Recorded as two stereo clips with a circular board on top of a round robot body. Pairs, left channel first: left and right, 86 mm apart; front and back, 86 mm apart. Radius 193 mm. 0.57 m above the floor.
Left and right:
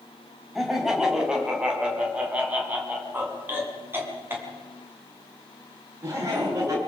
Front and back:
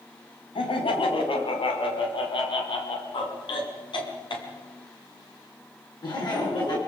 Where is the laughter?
5° right, 5 m; by 6.8 s 35° right, 8 m.